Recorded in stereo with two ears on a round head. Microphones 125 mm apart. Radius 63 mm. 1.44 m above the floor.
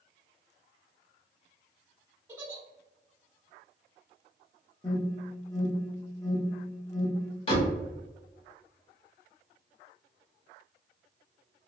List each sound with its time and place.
2.3 s a giggle: 20° right (ahead or behind), 1.1 m
4.8 s an alarm: 25° left (ahead or behind), 0.8 m
7.5 s a door slam: 40° left (ahead or behind), 0.9 m